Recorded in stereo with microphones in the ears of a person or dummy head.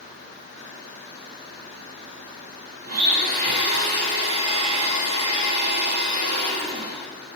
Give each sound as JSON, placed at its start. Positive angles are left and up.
{"t": 2.9, "sound": "a blender", "side_deg": -50, "distance_m": 1.3}